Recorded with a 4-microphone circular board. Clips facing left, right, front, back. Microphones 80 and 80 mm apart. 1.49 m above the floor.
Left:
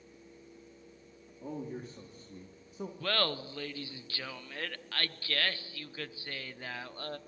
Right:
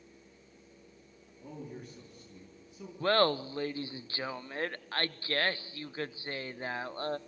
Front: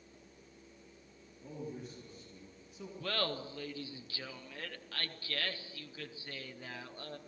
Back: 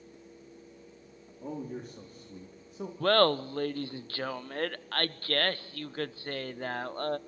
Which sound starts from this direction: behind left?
A man speaking, at 1.4 s.